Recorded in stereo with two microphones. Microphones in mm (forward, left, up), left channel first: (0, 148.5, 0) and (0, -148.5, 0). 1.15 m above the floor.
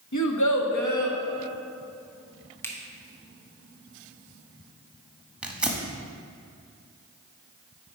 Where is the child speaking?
75° left (ahead or behind), 0.8 m; by 1.2 s 80° left, 1.4 m.